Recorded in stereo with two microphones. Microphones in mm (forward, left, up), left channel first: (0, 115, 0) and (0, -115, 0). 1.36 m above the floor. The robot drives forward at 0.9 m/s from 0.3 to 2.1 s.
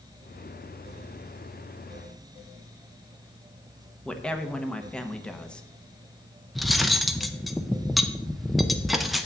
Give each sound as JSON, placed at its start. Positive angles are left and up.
{"t": 4.0, "sound": "a woman speaking", "side_deg": 5, "distance_m": 0.9}
{"t": 6.5, "sound": "cutlery clinking", "side_deg": 0, "distance_m": 0.6}